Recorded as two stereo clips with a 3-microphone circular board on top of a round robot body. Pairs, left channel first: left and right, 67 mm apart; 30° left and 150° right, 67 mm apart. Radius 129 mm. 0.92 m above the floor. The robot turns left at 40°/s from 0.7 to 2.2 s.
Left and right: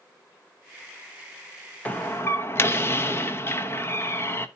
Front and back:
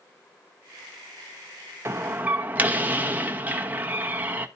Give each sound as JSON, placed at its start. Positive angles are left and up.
{"t": 1.9, "sound": "a door slam", "azimuth_deg": 160, "distance_m": 1.1}